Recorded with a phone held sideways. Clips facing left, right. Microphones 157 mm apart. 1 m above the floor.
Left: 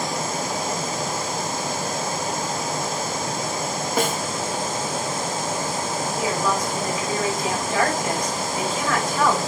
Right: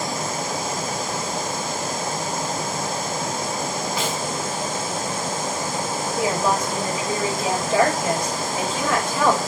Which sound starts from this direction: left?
A snare drum, at 4.0 s.